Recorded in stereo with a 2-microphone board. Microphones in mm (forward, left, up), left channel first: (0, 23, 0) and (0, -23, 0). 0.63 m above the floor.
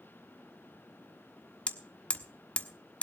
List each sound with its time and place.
1.7 s hammering: 30° left (ahead or behind), 1.3 m